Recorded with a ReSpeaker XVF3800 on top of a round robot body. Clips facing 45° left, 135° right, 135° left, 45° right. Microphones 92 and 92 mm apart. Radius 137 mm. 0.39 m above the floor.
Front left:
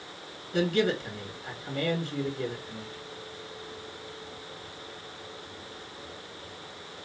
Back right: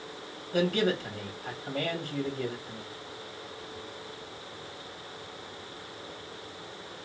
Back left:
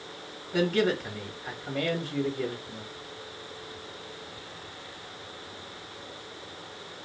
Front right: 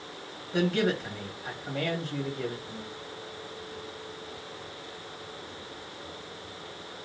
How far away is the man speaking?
About 1.7 m.